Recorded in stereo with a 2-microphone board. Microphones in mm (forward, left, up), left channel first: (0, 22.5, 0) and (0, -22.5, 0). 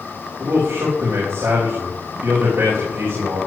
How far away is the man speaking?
About 5 m.